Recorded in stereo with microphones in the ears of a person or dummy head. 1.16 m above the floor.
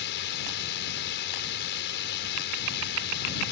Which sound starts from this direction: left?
A drone, at 0.0 s.